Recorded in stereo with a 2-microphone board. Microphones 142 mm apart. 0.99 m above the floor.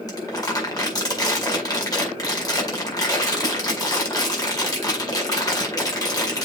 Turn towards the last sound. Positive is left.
turn(degrees=25)  # may be behind; listen again after turning